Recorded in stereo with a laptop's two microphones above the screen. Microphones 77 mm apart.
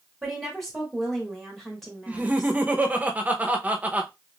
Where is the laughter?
20° right (ahead or behind), 0.6 m.